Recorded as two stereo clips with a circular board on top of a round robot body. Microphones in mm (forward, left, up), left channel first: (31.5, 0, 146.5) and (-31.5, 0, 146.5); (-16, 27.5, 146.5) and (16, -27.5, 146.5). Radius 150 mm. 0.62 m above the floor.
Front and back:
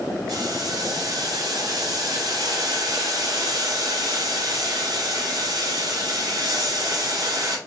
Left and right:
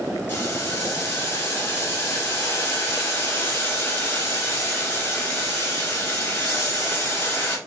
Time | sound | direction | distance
0.3 | boiling | 170° left | 3 m